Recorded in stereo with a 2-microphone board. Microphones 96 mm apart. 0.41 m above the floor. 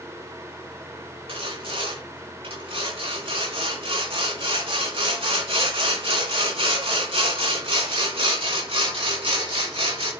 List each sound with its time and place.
1.3 s sawing: 75° right (ahead or behind), 3.5 m